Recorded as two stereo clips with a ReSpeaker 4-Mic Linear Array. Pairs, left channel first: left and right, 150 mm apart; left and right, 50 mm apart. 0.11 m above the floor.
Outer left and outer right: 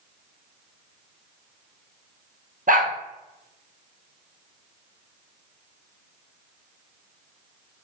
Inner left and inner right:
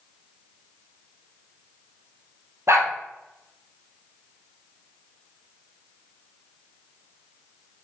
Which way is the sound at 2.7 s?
65° right (ahead or behind).